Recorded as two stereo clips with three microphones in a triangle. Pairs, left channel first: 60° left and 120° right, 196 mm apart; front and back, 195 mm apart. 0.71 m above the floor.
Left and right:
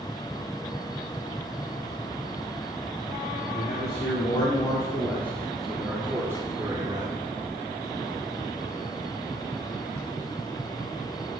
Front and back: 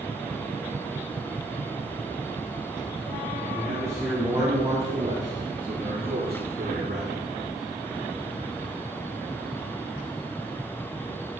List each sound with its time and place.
3.5 s a man speaking: 105° left, 2 m; by 7.2 s 175° left, 2.5 m